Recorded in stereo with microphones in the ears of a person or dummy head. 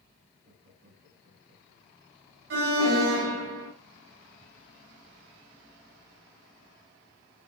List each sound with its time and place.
0.4 s laughter: 75° right (ahead or behind), 9.5 m
2.5 s an alarm: 75° right (ahead or behind), 3.5 m